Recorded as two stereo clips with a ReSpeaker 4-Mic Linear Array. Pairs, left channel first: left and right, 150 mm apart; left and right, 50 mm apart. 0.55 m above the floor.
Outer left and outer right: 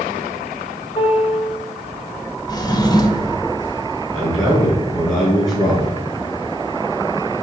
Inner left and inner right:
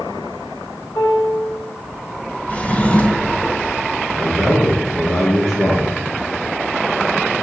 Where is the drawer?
25° left (ahead or behind), 0.7 m.